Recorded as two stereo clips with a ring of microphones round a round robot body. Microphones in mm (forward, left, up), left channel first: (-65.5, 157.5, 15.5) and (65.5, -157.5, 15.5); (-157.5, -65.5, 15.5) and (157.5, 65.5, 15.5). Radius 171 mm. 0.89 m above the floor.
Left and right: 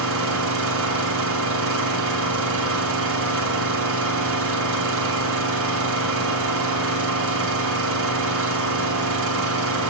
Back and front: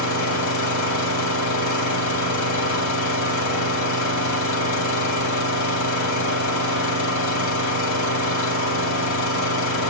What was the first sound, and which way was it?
An engine running, 120° right.